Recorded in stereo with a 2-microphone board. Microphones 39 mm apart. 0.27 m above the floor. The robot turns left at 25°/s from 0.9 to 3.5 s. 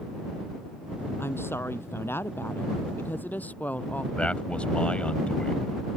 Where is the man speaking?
30° left (ahead or behind).